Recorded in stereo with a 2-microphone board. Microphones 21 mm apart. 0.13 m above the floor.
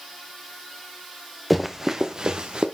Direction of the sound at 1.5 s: 5° right (ahead or behind).